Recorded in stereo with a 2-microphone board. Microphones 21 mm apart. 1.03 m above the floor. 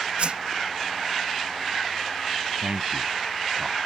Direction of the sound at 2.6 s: 75° right (ahead or behind).